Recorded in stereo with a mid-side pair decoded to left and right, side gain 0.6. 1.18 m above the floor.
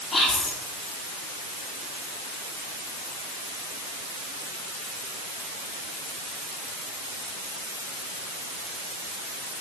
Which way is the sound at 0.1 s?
35° left.